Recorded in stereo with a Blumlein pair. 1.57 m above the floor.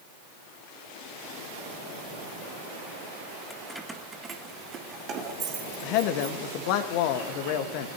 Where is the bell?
I don't hear a bell.